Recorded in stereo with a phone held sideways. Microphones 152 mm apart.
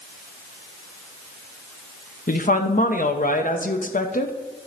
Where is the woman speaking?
60° left (ahead or behind), 0.8 m.